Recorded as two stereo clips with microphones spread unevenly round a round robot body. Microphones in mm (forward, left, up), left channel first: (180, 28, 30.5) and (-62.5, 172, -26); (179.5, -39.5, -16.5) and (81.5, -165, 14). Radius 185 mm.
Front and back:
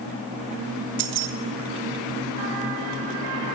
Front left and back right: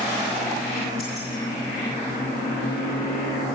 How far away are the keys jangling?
About 0.6 m.